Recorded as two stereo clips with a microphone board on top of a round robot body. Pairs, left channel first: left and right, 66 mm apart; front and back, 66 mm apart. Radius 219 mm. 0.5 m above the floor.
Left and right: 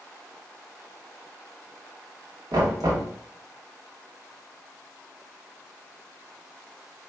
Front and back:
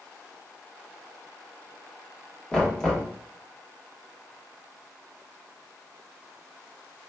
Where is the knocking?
80° right, 1.7 m.